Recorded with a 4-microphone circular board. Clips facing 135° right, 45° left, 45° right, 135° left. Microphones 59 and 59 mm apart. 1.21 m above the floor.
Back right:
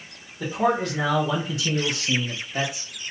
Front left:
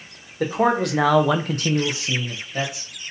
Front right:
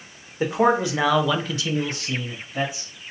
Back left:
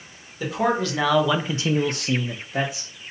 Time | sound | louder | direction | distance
0.4 | a man speaking | front left 3 dB, front right 3 dB | 15° left | 1.1 m